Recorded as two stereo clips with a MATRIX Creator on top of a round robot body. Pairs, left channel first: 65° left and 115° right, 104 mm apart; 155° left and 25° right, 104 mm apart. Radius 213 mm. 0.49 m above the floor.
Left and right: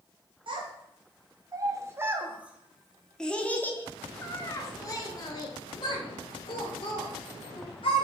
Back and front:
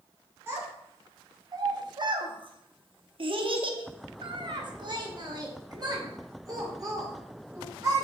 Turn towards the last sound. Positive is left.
turn(degrees=35)